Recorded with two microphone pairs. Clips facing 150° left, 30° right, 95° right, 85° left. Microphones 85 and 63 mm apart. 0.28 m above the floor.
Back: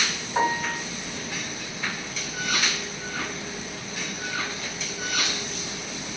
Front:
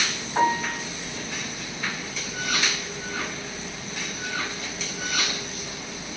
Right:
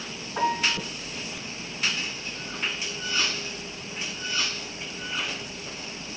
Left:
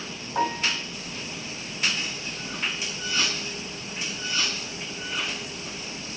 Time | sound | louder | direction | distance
0.3 | a piano | front 2 dB, right 1 dB | 65° left | 2.5 m